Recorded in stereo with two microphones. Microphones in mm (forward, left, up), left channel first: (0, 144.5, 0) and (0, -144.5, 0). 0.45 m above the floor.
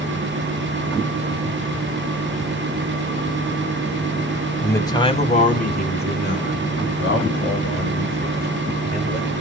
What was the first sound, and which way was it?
A man speaking, 5° left (ahead or behind).